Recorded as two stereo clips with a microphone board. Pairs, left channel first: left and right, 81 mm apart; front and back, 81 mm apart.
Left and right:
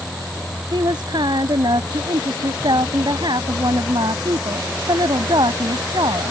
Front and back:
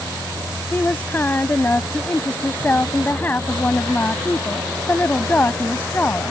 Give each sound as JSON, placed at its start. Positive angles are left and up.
{"t": 0.7, "sound": "a woman speaking", "azimuth_deg": -70}